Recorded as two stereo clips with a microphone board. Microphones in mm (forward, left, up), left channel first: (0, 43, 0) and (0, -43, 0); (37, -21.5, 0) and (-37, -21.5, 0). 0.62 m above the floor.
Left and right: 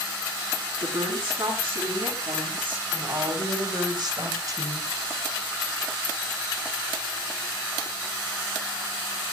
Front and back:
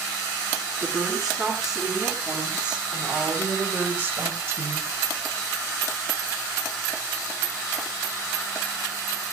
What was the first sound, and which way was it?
A woman speaking, 95° right.